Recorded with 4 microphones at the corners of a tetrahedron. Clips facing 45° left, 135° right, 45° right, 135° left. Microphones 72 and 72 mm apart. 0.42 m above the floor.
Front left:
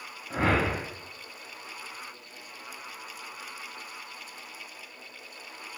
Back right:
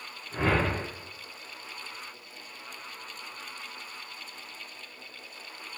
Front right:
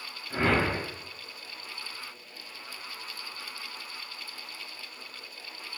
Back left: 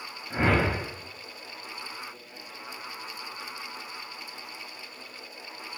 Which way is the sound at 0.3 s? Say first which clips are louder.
Front left 1 dB, back left 1 dB; 60° left.